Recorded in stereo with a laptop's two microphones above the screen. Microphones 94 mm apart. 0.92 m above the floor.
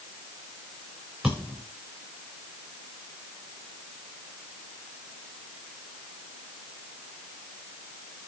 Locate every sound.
1.2 s a thud: 10° right (ahead or behind), 7 m